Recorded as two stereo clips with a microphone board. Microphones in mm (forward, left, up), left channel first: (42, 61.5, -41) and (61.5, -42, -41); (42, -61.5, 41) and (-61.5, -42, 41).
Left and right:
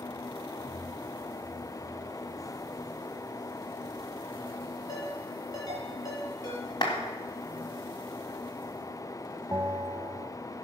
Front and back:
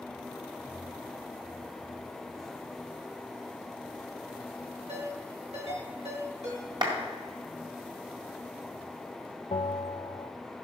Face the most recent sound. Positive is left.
turn(degrees=-20)